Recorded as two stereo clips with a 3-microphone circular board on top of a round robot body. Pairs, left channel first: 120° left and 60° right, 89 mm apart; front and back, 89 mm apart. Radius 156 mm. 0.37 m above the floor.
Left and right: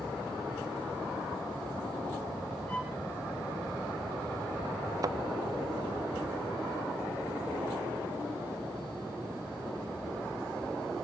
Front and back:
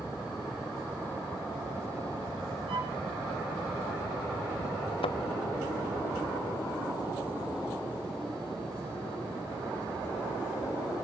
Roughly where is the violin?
Behind.